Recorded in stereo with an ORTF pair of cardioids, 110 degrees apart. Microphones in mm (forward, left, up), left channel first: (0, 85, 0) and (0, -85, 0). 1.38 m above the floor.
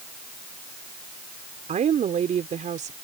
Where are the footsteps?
No footsteps in this recording.